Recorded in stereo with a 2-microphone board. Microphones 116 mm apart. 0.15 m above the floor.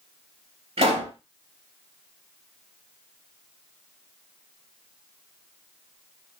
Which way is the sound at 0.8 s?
60° right (ahead or behind).